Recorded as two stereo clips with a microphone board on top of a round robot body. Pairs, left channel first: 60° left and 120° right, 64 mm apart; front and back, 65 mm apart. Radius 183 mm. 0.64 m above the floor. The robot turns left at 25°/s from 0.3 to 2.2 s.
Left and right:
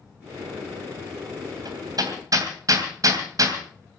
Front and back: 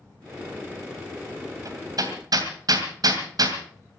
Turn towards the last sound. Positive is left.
turn(degrees=-155)